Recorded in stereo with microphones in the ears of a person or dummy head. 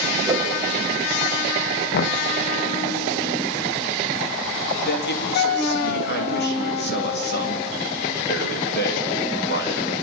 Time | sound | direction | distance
0.3 | a whoosh | 20° right (ahead or behind) | 2.5 m
1.9 | knocking | 60° left (ahead or behind) | 1.4 m
4.8 | a man speaking | 55° left (ahead or behind) | 3.5 m